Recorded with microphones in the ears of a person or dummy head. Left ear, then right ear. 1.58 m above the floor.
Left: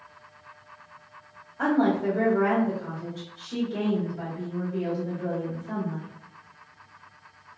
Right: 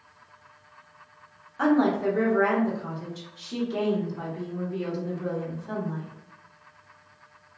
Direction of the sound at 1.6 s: 80° right.